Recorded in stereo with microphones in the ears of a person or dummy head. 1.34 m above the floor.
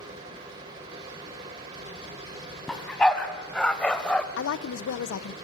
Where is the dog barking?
Centre (ahead or behind), 2.5 m; by 4.3 s 5° left (ahead or behind), 1.2 m.